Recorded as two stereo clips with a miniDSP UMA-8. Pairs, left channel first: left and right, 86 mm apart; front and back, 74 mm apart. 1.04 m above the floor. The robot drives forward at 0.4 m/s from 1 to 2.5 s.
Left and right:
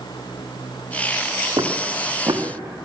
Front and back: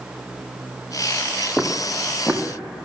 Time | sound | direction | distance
1.6 | footsteps | 80° right | 2 m